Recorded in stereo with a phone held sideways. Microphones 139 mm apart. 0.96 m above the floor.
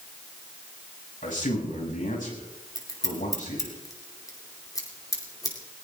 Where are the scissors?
25° left (ahead or behind), 2.5 m.